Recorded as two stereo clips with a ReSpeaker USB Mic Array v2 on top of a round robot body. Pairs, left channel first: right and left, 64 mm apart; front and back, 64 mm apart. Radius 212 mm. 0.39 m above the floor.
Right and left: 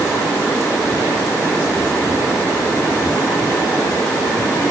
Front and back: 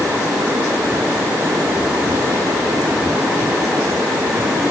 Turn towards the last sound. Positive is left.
No sound to turn to.